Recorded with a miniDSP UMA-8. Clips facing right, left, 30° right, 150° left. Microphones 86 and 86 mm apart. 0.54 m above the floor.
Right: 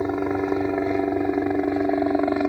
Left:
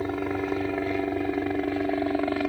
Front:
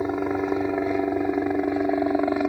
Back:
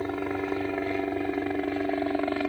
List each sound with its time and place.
0.0 s a helicopter: 65° right